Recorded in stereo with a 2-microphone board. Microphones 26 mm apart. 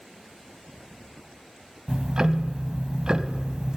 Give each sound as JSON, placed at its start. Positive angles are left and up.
{"t": 1.9, "sound": "ticking", "side_deg": -30, "distance_m": 0.6}